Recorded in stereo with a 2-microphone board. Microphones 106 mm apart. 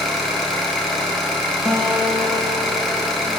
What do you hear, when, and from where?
0.0 s an engine running: 5° left (ahead or behind), 1.3 m
1.6 s a guitar: 5° left (ahead or behind), 0.8 m